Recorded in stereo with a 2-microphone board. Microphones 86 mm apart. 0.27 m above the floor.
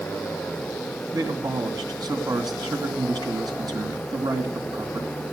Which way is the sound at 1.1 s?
50° right (ahead or behind).